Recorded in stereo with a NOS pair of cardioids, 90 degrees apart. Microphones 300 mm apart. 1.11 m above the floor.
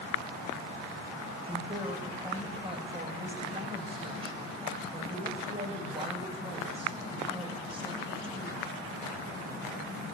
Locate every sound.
1.5 s a woman speaking: 15° right, 6.5 m